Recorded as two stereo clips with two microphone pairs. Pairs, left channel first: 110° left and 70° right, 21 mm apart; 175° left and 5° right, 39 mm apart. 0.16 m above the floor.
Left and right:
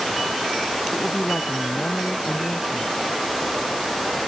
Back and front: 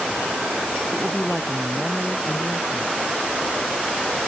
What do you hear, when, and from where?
0.9 s a woman speaking: 100° left